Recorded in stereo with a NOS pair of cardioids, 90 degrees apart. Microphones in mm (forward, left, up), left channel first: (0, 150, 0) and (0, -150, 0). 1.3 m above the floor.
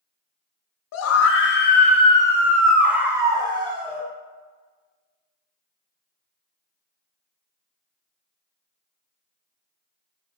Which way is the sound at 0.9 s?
60° left.